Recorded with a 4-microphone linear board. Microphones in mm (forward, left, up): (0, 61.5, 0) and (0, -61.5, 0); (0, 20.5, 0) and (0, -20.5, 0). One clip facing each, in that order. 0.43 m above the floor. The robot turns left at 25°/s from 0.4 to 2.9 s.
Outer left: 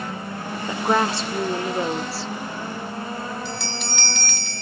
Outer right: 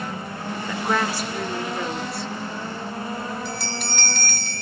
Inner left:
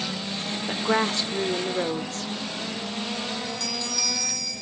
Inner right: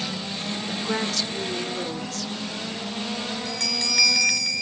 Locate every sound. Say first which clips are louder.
0.7 s a woman speaking: outer left 3 dB, inner left 5 dB; 135° left, 0.8 m; by 2.3 s 95° left, 0.8 m
3.5 s a bell: even, inner right 3 dB; 50° right (ahead or behind), 1.4 m